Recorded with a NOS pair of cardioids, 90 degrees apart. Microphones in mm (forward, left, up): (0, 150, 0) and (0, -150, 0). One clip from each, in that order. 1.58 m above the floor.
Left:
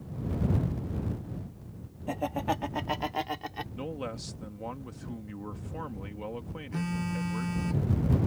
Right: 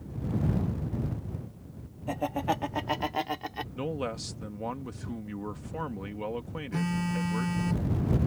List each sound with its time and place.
2.1 s laughter: 5° right; by 3.6 s 10° right
3.8 s a man speaking: 25° right
6.7 s a phone buzzing: 15° right